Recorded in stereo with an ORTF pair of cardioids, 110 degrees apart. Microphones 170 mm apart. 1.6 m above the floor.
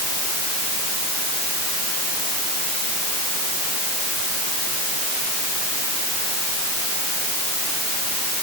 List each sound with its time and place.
Only background noise.